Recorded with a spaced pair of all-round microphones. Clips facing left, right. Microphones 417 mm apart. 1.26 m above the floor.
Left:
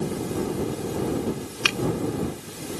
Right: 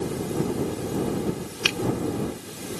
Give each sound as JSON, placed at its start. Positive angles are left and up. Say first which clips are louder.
{"t": 1.6, "sound": "a finger snap", "louder": "right 1 dB", "side_deg": 70}